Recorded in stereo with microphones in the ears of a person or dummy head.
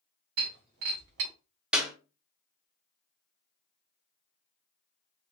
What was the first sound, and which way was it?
Breaking glass, 55° right (ahead or behind).